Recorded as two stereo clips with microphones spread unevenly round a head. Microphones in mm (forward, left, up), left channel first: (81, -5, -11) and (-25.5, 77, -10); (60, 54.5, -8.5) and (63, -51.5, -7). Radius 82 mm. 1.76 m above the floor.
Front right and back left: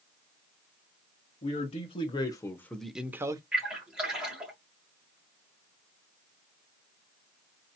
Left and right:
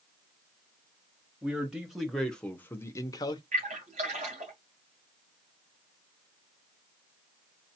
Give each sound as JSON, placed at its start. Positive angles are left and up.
{"t": 1.4, "sound": "a man speaking", "azimuth_deg": -10, "distance_m": 1.3}
{"t": 3.5, "sound": "a splash", "azimuth_deg": -130, "distance_m": 2.0}